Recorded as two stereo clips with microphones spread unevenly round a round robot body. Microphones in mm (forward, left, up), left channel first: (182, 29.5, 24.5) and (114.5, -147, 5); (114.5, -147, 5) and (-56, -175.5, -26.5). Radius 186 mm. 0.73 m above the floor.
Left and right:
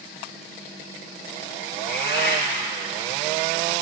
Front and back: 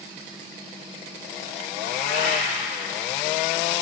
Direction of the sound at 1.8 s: 50° left.